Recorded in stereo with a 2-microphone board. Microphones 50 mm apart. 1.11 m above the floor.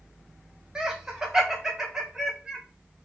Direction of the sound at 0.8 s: 10° right (ahead or behind).